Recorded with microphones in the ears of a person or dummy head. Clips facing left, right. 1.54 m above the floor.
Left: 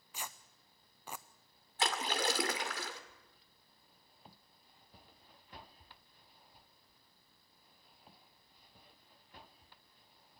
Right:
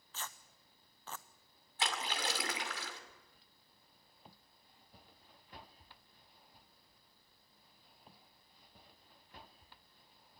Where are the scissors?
I don't hear scissors.